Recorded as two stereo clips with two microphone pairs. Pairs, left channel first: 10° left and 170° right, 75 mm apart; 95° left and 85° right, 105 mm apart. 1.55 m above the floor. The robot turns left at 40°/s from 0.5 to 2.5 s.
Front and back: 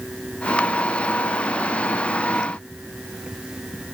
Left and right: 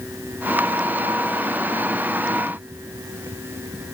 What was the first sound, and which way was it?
Only background noise.